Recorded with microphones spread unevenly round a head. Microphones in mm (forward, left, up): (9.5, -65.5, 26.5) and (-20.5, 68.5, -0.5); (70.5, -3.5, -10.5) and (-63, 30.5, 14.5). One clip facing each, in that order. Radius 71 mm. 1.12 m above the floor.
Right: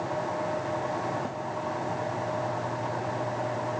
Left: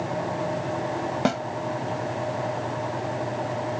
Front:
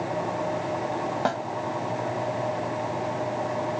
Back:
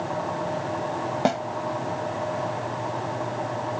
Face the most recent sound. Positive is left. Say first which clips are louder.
# left 10 dB, back 5 dB
turn(degrees=100)